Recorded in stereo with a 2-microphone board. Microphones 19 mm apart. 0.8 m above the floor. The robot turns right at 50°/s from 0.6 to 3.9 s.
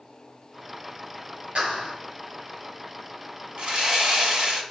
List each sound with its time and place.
1.6 s a clap: 65° right (ahead or behind), 5 m; by 1.9 s 85° right, 5 m
3.6 s sawing: 55° right (ahead or behind), 1.9 m; by 4.6 s 40° right (ahead or behind), 1.9 m